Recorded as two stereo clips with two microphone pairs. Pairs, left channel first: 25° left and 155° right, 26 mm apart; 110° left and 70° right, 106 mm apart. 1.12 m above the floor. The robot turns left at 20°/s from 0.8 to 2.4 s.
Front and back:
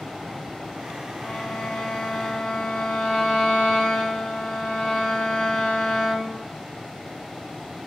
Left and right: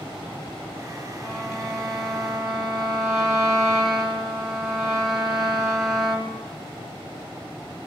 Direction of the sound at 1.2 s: 40° left.